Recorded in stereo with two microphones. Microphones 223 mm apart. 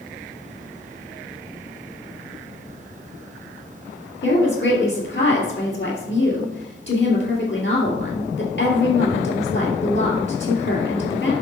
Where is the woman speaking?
60° left (ahead or behind), 3 m.